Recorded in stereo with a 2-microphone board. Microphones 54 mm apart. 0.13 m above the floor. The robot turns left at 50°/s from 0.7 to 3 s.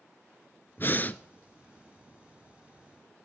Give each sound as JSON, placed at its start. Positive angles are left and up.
{"t": 0.8, "sound": "breathing", "side_deg": 45, "distance_m": 0.5}